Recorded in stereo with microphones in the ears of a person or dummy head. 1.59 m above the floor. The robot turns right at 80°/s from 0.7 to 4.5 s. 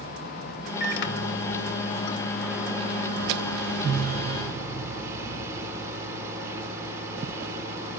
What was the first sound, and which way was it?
A microwave, 45° left.